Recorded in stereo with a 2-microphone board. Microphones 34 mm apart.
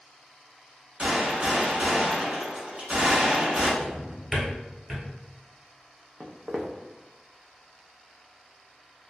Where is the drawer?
20° right (ahead or behind), 1.3 m.